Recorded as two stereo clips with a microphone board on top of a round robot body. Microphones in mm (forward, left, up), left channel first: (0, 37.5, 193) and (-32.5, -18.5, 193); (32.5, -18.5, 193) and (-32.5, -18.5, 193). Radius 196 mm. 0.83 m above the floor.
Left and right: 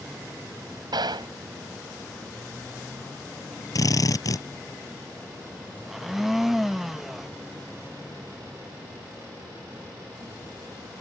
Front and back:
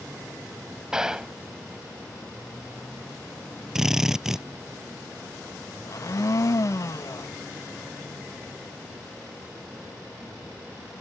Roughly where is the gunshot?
Right.